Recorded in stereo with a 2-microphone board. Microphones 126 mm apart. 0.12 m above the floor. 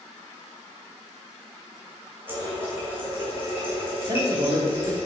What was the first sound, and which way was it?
A running tap, 15° right (ahead or behind).